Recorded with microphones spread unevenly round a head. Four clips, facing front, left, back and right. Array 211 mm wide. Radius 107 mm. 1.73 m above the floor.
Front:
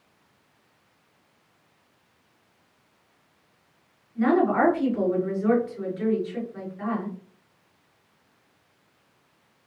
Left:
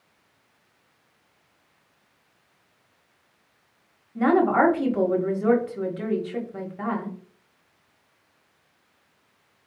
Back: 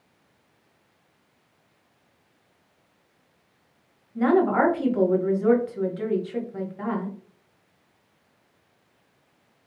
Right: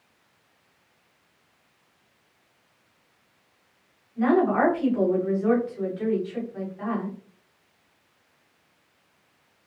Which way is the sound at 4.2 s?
120° left.